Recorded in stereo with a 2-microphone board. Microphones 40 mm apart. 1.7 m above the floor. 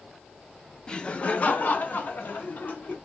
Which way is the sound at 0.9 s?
20° left (ahead or behind).